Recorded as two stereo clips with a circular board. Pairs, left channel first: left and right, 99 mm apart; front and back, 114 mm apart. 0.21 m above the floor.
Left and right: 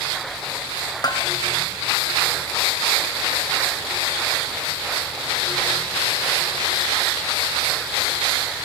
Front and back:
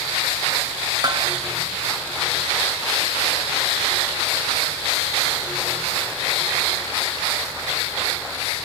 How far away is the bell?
About 1.2 m.